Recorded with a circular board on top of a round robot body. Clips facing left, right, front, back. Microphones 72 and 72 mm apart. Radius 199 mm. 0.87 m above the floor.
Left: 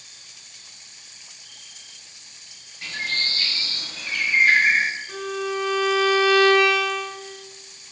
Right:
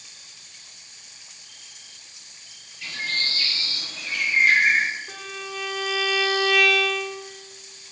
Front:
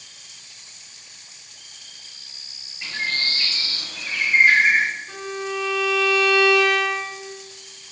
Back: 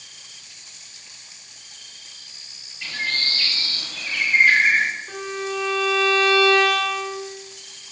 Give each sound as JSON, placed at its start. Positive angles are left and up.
{"t": 2.8, "sound": "a bird", "azimuth_deg": 65, "distance_m": 1.1}
{"t": 5.1, "sound": "a violin", "azimuth_deg": -125, "distance_m": 1.0}